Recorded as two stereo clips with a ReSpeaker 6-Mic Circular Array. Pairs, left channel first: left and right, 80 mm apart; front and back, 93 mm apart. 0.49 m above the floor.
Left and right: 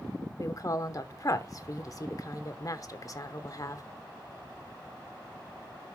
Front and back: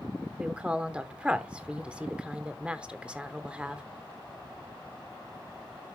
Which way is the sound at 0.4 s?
105° left.